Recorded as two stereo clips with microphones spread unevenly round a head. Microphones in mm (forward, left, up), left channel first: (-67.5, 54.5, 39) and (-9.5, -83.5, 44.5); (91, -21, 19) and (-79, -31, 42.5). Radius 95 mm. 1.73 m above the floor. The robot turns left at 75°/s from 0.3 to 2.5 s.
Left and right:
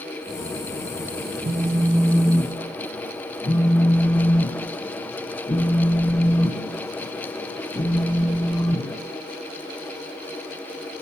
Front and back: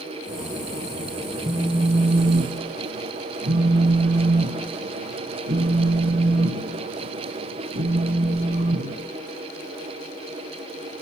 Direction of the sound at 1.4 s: 105° right.